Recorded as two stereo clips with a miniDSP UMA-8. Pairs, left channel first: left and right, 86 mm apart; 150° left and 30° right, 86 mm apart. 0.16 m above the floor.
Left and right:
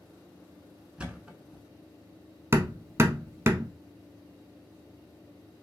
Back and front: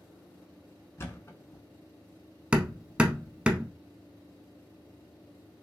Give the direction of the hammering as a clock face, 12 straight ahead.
3 o'clock.